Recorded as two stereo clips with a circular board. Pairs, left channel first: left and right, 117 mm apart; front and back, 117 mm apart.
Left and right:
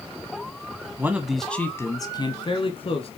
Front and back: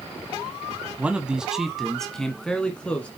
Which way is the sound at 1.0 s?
120° right.